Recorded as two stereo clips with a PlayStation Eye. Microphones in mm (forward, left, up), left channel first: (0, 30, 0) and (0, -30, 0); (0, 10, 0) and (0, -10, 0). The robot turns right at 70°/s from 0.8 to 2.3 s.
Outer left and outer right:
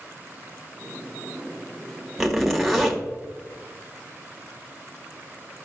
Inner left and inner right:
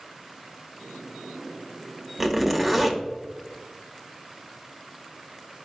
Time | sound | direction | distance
2.2 | a zipper | 5° right (ahead or behind) | 1.5 m